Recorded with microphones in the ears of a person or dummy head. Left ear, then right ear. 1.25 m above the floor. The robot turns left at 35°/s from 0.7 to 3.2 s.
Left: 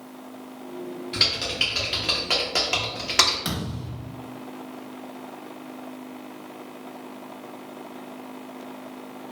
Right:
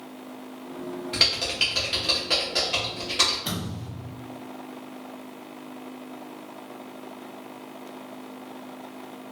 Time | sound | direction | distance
1.1 | typing on a keyboard | 15° right (ahead or behind) | 0.6 m
3.5 | a thud | 60° left (ahead or behind) | 1.1 m